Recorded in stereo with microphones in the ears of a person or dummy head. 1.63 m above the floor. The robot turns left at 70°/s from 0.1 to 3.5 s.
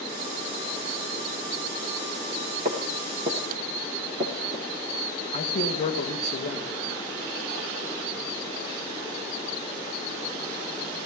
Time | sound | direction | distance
2.6 | footsteps | 35° right (ahead or behind) | 1.9 m
5.3 | a man speaking | 30° left (ahead or behind) | 1.6 m